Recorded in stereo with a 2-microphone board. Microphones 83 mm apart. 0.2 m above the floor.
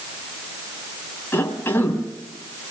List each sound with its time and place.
1.3 s a cough: 25° left (ahead or behind), 2.5 m